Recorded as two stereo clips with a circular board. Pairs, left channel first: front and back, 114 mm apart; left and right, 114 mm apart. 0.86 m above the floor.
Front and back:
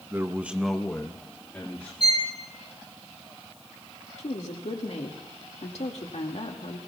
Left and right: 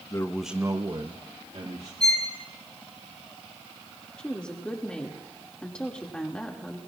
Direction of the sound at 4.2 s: 10° left.